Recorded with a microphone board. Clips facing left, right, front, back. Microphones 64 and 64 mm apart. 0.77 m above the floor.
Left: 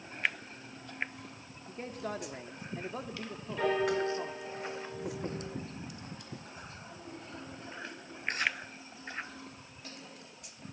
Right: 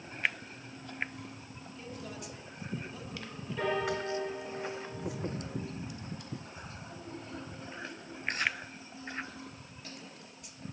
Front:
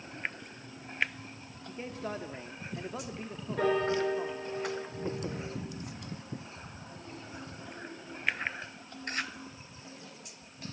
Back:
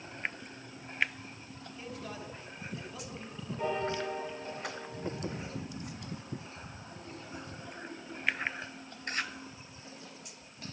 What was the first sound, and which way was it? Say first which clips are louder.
A man speaking: left 6 dB, front 5 dB; 50° left.